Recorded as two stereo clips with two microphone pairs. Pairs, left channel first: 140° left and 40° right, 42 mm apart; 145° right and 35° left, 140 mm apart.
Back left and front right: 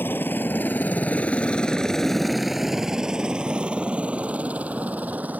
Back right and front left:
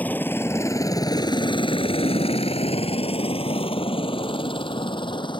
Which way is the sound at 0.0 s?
140° left.